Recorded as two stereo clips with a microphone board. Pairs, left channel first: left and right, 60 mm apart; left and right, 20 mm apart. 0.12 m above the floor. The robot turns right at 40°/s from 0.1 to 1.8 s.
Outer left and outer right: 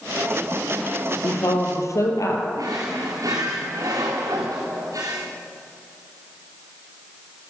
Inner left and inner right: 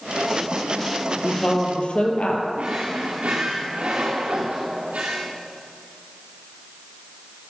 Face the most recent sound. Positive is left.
turn(degrees=-75)  # may be behind; listen again after turning